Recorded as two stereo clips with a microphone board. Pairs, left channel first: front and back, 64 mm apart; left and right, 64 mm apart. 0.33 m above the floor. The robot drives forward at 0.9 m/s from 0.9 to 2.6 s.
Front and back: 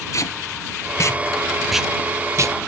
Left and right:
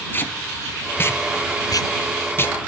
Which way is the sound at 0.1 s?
35° left.